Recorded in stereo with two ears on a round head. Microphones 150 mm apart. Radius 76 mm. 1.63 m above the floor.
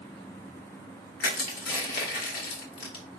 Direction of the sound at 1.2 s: 65° left (ahead or behind).